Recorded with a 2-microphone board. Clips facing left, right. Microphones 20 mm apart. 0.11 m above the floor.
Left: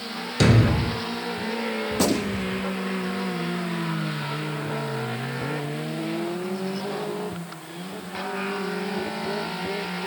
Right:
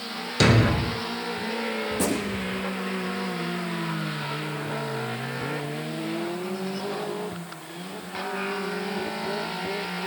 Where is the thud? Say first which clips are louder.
Even; 10° right (ahead or behind), 0.6 m.